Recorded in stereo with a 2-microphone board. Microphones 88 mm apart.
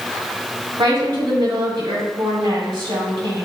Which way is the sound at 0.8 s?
65° right (ahead or behind).